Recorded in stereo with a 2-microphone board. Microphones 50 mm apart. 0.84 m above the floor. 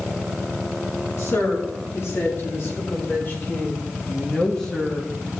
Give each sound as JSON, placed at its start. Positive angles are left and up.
{"t": 1.2, "sound": "a woman speaking", "side_deg": 65, "distance_m": 2.5}